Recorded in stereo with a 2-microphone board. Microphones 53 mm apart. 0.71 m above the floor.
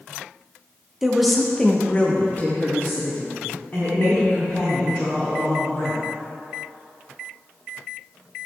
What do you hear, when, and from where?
1.0 s a woman speaking: 5° right (ahead or behind), 1.1 m; by 6.0 s 35° left (ahead or behind), 4 m